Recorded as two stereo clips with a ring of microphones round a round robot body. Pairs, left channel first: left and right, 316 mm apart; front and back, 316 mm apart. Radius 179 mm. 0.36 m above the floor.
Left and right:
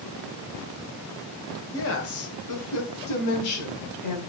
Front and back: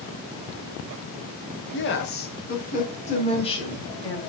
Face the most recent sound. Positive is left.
turn(degrees=80)